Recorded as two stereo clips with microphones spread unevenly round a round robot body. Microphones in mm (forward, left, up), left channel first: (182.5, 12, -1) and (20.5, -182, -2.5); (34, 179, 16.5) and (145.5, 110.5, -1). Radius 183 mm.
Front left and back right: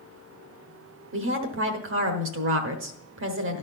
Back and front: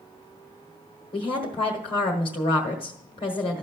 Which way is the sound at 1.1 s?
155° right.